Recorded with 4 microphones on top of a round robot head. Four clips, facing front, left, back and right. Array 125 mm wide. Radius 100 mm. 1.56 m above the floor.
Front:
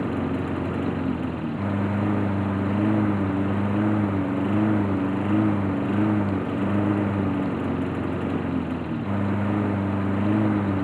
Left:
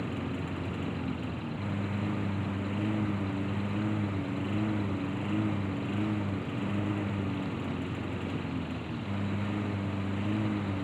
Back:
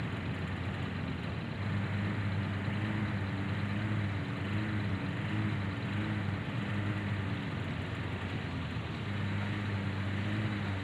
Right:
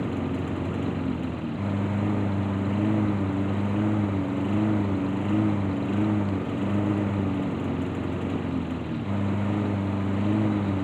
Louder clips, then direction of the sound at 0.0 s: Right 7 dB, front 14 dB; 20° right.